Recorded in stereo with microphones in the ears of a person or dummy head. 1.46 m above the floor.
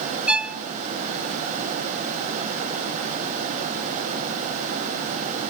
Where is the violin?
10° right (ahead or behind), 0.6 m.